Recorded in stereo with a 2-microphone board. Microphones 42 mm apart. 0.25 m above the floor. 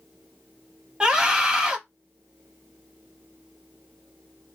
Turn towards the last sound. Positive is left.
turn(degrees=-20)  # may be behind; listen again after turning